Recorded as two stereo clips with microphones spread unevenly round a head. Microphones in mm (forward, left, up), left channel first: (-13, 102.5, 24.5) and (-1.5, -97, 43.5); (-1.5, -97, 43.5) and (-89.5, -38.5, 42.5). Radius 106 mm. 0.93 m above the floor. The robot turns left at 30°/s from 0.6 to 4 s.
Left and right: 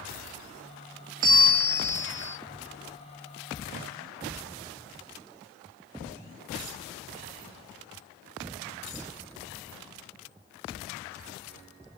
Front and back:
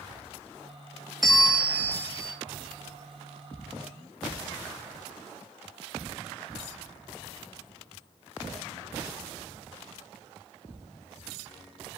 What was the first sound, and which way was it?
A bell, 125° right.